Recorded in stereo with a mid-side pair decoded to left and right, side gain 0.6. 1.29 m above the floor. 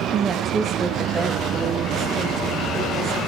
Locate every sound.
0.1 s a woman speaking: 40° right, 0.8 m; by 3.2 s 15° right, 2.5 m